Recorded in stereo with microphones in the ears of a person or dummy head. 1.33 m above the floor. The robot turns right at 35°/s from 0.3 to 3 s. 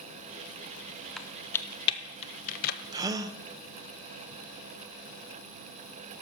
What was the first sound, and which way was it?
Typing on a keyboard, centre (ahead or behind).